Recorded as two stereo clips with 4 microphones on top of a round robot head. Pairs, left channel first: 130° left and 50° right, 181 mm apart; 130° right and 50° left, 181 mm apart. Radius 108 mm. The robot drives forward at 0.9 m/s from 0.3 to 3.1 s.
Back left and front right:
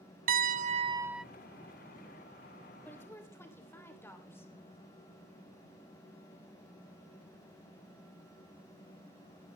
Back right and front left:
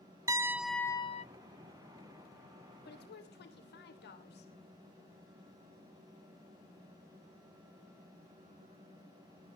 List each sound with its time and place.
0.3 s a piano: 20° right, 0.8 m; by 1.2 s 135° right, 0.6 m
2.9 s a woman speaking: 150° right, 2.5 m